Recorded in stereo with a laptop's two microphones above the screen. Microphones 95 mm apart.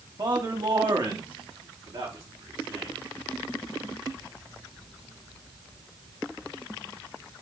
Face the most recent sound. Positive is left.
turn(degrees=-60)  # may be behind; listen again after turning